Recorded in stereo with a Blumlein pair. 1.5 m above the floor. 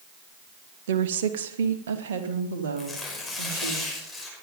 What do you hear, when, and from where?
0.9 s a woman speaking: 60° right, 1.4 m
2.8 s tearing paper: 5° left, 6 m